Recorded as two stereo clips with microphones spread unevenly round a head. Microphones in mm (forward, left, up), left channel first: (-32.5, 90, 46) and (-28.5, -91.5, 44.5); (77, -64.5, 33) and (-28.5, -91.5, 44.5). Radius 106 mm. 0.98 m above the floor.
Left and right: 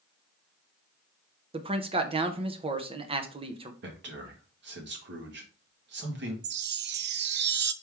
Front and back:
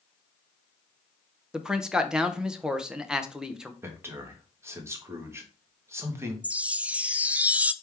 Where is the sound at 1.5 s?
75° right, 0.8 m.